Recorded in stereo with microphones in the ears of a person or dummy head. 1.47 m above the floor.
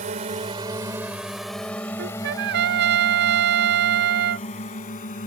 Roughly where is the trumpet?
Right.